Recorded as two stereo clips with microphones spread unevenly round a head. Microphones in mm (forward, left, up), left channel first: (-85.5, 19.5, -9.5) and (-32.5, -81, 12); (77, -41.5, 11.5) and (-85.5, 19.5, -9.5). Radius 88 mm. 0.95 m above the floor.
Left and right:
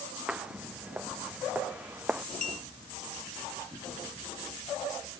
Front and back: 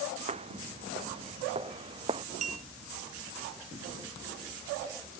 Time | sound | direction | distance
0.3 | footsteps | 145° right | ?
2.4 | a clink | 105° left | ?